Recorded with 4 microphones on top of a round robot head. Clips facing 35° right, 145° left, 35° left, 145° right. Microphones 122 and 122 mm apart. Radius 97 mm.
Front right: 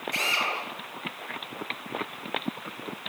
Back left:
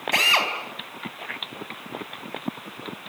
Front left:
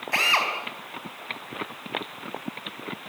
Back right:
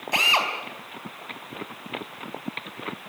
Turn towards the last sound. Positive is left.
turn(degrees=145)